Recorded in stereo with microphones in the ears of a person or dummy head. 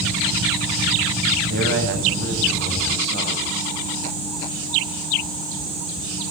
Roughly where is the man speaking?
Right.